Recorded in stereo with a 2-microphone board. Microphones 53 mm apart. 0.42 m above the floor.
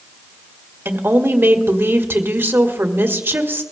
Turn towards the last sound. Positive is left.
turn(degrees=-45)  # may be behind; listen again after turning